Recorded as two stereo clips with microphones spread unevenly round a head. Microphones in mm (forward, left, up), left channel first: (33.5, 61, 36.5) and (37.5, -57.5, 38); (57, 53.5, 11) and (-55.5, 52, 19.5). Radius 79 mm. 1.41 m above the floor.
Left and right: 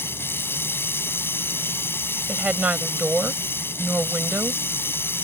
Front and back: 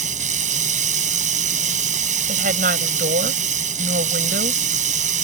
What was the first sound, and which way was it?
Running water, 170° left.